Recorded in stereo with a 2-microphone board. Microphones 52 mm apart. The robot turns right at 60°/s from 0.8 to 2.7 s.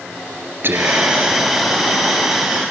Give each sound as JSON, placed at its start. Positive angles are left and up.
{"t": 0.6, "sound": "whispering", "azimuth_deg": -55, "distance_m": 2.5}